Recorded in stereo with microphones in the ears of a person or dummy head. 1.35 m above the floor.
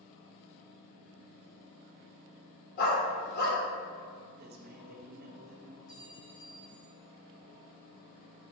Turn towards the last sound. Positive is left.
turn(degrees=45)  # may be behind; listen again after turning